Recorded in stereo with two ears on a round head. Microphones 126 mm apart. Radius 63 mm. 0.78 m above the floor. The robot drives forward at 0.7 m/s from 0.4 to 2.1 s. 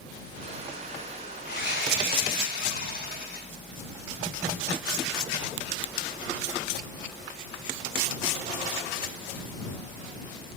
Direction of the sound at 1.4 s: 75° left (ahead or behind).